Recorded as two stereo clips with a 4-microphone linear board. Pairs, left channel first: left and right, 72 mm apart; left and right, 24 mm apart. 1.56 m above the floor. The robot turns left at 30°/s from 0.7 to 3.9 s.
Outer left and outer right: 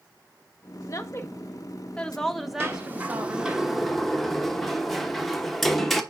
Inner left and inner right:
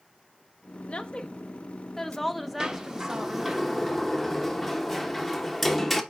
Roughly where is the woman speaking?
Ahead left.